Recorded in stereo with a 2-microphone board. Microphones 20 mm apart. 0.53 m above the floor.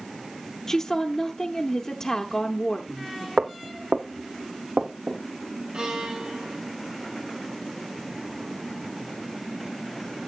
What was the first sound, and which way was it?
A woman speaking, 25° left (ahead or behind).